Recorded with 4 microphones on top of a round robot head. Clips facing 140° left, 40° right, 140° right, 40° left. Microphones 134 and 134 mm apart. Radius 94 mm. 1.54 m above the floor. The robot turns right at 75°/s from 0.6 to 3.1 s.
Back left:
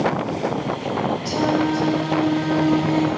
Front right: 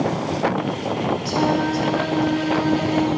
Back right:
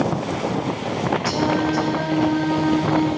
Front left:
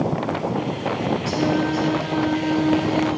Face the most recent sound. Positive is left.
turn(degrees=10)